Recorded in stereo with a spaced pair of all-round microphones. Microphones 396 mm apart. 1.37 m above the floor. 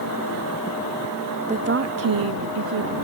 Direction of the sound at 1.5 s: 15° right (ahead or behind).